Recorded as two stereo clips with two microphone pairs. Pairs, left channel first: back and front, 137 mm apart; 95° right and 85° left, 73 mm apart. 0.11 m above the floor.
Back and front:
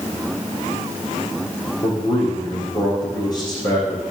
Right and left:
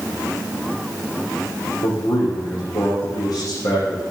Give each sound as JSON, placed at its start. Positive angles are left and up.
{"t": 1.8, "sound": "a man speaking", "azimuth_deg": -125, "distance_m": 5.5}